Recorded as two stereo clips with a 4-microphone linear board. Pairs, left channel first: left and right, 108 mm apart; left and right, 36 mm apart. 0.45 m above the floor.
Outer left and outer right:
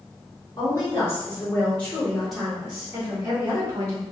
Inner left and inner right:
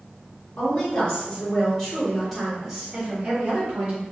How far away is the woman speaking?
About 1.8 m.